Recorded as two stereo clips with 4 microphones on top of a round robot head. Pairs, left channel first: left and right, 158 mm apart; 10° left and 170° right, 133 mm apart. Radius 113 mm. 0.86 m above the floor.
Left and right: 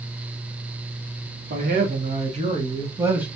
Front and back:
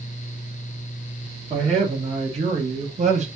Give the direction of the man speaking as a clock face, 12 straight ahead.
4 o'clock.